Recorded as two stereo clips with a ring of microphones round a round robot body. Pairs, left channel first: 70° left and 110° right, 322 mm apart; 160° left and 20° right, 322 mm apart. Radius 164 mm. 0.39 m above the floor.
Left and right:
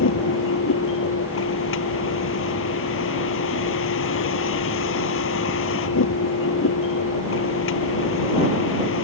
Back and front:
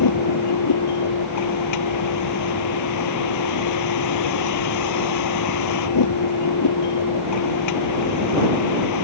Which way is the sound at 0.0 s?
120° left.